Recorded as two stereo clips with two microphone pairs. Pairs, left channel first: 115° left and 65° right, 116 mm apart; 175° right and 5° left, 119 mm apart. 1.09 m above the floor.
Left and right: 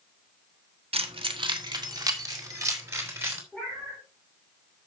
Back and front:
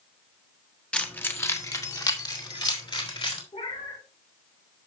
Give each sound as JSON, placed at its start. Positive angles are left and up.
{"t": 0.9, "sound": "keys jangling", "azimuth_deg": -95, "distance_m": 1.5}
{"t": 3.5, "sound": "a cat meowing", "azimuth_deg": -160, "distance_m": 5.0}